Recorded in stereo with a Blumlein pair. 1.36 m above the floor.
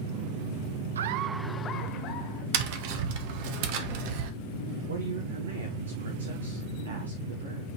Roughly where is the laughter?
Ahead right.